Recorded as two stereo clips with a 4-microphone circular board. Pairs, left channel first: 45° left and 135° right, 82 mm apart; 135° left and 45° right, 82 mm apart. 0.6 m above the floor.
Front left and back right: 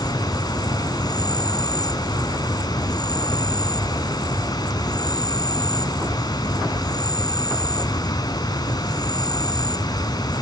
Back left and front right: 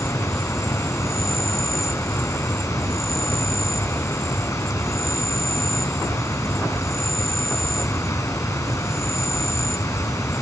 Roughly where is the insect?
Left.